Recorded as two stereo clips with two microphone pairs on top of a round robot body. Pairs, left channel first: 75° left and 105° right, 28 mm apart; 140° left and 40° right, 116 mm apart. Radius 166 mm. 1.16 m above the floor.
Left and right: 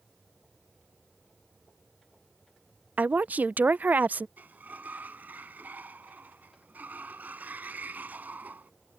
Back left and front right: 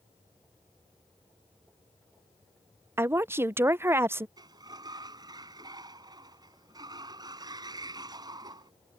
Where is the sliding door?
100° right.